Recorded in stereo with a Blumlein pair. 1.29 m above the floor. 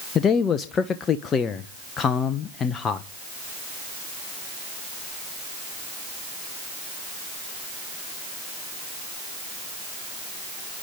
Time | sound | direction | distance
0.1 | a man speaking | 25° left | 1.0 m